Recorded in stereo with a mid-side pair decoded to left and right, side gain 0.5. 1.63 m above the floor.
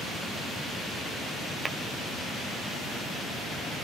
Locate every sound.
1.6 s tapping: 20° right, 0.9 m